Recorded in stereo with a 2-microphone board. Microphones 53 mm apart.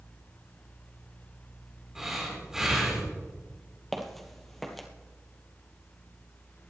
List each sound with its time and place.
1.9 s breathing: 10° right (ahead or behind), 5.5 m
3.9 s footsteps: 5° left (ahead or behind), 1.5 m